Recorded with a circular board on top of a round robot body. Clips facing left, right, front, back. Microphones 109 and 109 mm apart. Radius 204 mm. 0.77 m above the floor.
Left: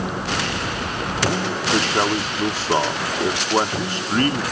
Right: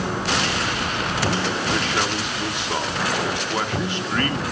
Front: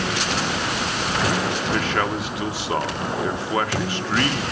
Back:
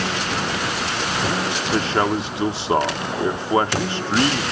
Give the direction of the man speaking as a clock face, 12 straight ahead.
8 o'clock.